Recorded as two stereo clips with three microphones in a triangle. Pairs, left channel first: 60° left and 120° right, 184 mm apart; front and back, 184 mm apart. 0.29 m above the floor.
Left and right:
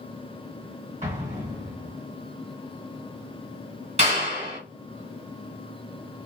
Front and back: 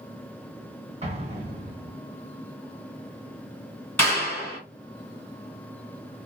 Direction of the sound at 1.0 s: 145° right.